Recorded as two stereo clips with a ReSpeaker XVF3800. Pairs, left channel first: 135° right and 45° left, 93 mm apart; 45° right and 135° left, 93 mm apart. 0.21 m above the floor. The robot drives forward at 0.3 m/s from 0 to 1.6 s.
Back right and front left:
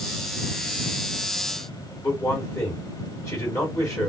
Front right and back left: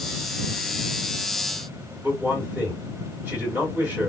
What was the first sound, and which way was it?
A man speaking, 170° right.